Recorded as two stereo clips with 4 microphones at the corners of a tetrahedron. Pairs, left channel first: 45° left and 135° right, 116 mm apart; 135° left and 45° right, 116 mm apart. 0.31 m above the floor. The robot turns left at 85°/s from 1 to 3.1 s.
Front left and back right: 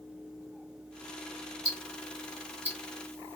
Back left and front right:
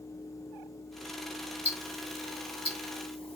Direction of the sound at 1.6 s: 120° right.